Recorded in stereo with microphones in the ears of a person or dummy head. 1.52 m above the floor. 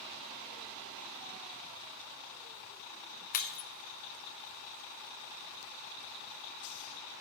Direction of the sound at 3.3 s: 45° left (ahead or behind).